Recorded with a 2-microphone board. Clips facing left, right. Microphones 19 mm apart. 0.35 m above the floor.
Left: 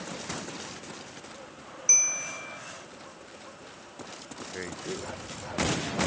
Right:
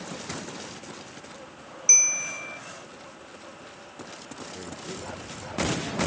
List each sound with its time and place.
1.9 s a bell: 25° right (ahead or behind)
4.5 s a man speaking: 45° left (ahead or behind)